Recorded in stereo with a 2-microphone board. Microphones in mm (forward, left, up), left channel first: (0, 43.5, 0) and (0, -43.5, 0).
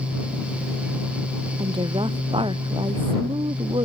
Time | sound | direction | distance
1.6 | a woman speaking | 75° right (ahead or behind) | ?